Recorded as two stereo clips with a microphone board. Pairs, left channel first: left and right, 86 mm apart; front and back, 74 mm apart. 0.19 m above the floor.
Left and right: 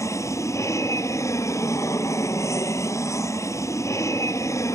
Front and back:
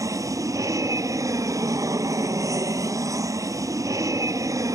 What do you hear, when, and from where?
0.0 s an aircraft: 140° left